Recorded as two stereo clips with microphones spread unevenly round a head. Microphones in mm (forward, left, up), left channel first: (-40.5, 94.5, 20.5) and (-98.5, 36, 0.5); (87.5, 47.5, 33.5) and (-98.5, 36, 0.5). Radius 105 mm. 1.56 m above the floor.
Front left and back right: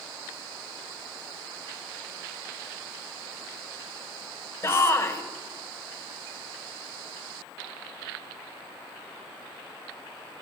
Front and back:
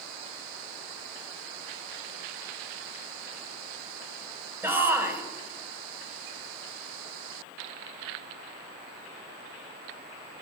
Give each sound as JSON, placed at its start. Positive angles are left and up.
{"t": 4.6, "sound": "a shout", "azimuth_deg": 105, "distance_m": 1.6}